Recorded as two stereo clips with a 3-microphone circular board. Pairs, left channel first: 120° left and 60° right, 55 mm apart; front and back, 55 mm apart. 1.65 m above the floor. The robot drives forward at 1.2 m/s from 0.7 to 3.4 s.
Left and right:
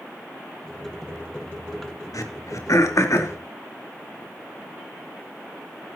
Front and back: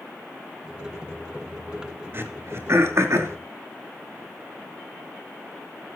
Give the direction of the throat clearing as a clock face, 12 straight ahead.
8 o'clock.